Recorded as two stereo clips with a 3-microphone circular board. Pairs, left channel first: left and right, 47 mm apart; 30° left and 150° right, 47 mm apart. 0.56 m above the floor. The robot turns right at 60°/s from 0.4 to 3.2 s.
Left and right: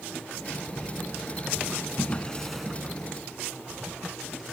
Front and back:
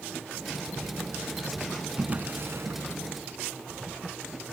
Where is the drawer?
140° left, 1.9 m; by 2.8 s 170° right, 1.9 m.